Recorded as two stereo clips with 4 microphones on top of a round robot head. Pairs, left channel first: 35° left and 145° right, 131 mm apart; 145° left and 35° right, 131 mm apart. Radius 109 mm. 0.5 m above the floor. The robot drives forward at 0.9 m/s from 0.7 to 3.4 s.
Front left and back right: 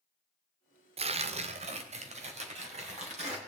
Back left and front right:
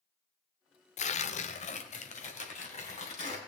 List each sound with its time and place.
1.0 s tearing paper: 175° left, 0.8 m; by 3.4 s straight behind, 3 m